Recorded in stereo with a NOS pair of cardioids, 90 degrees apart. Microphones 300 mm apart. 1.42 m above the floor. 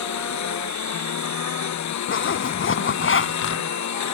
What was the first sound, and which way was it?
A lawn mower, 65° left.